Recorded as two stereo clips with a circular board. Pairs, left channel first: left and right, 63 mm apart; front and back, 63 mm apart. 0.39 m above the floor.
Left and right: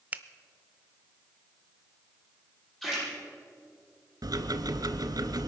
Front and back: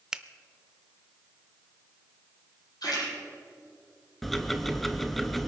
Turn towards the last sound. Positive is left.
turn(degrees=-90)